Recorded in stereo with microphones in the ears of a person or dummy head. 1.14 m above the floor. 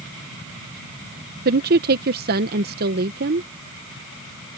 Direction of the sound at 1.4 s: 50° right (ahead or behind).